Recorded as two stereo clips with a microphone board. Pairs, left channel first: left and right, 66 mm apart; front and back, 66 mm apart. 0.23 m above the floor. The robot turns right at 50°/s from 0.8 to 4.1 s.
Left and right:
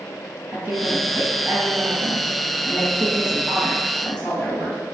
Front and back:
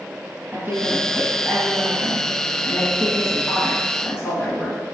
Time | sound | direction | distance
0.5 | a woman speaking | 130° right | 1.5 m